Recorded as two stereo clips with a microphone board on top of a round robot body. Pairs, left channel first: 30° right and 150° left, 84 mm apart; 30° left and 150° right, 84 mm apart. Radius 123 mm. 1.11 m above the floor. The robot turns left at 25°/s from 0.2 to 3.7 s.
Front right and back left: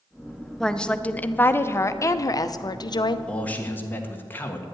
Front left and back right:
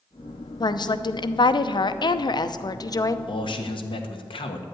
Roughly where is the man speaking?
Ahead left.